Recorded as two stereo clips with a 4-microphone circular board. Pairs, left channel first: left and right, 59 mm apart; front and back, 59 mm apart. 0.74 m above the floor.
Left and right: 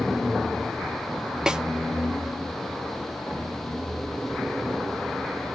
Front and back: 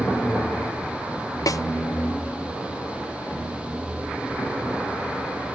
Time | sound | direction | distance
1.5 | a snare drum | 10° right | 0.5 m